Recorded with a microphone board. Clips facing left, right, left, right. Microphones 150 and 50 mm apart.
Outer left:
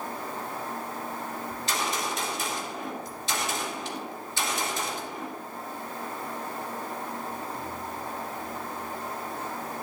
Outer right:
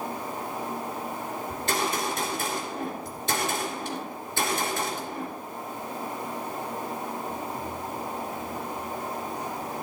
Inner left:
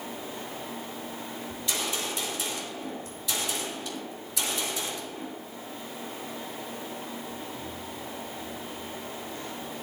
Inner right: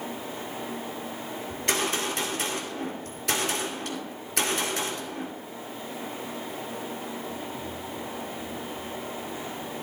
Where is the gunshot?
55° right (ahead or behind), 2.5 m.